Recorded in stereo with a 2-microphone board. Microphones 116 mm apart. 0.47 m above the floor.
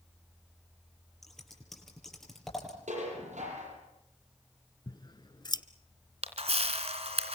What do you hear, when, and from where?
1.2 s scissors: centre (ahead or behind), 7.5 m
2.9 s dishes clattering: 80° right, 8.5 m
4.9 s scissors: 40° left (ahead or behind), 1.2 m
6.2 s a camera shutter: 60° right (ahead or behind), 3 m